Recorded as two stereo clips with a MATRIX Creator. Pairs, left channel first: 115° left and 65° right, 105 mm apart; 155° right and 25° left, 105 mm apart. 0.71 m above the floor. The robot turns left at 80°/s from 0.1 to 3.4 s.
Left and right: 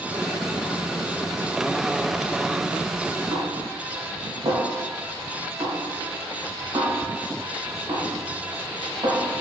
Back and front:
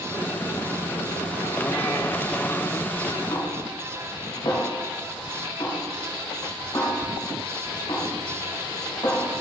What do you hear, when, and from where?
3.3 s a snare drum: 105° right, 2.5 m; by 9.4 s 115° right, 2.5 m